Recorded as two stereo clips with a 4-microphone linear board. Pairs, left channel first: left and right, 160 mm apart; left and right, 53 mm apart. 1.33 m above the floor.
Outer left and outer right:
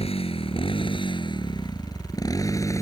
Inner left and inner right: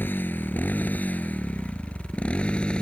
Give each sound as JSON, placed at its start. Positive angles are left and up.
{"t": 0.0, "sound": "a motorcycle", "side_deg": 40}